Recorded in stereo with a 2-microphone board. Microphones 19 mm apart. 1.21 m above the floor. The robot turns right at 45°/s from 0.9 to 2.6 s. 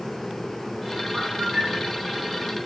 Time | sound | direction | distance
1.1 | a bird | 115° right | 2.5 m